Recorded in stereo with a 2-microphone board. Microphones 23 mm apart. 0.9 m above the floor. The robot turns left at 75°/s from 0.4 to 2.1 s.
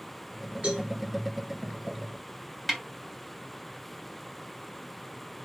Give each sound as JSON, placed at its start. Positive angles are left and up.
{"t": 0.6, "sound": "a cowbell", "side_deg": -55, "distance_m": 3.0}
{"t": 2.7, "sound": "a snare drum", "side_deg": -5, "distance_m": 3.0}